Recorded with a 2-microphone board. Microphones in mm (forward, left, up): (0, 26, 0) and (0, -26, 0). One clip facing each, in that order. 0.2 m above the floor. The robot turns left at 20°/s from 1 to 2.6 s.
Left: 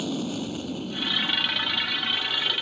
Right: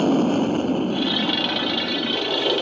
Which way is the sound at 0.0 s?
45° right (ahead or behind).